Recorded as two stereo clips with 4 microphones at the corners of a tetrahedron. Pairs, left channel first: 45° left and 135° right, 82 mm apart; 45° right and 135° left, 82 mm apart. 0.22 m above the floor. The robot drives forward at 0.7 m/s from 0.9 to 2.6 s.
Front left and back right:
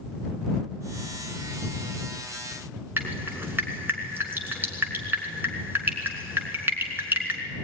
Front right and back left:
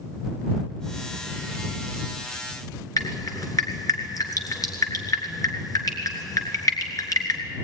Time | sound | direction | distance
3.0 | dripping | 75° right | 3 m